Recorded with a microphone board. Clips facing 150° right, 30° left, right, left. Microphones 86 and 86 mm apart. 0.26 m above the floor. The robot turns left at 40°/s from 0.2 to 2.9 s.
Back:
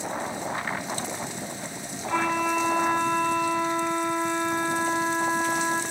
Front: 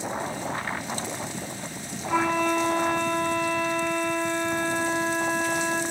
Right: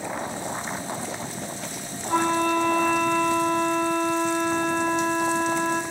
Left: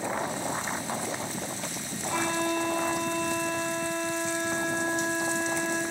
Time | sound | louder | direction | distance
2.1 | a flute | front 1 dB, right 7 dB | 50° right | 1.0 m